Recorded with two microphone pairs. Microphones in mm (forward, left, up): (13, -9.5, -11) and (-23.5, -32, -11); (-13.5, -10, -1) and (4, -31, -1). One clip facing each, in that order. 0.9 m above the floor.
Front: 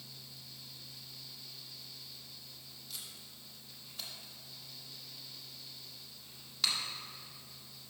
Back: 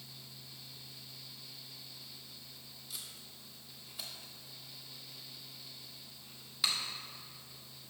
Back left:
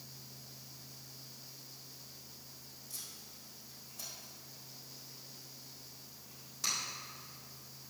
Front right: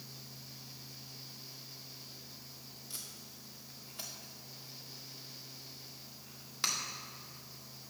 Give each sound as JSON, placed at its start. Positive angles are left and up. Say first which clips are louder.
{"t": 2.9, "sound": "tape being pulled", "louder": "even, front right 1 dB", "azimuth_deg": -70, "distance_m": 1.6}